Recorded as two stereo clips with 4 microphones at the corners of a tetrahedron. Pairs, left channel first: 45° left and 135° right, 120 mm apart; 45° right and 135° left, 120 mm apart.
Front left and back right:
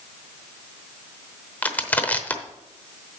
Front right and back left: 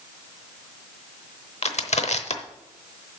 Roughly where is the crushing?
Ahead right.